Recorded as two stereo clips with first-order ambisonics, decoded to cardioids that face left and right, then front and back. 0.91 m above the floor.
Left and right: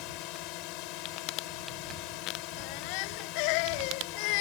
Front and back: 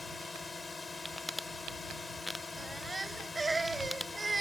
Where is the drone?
80° left.